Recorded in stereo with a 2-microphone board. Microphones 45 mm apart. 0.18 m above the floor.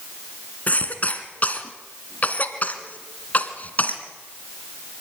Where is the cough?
35° left (ahead or behind), 2 m.